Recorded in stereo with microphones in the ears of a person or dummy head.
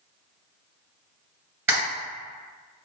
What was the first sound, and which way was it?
A camera shutter, 15° right (ahead or behind).